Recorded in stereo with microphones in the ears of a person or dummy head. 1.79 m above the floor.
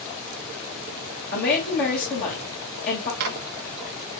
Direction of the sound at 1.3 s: 50° left (ahead or behind).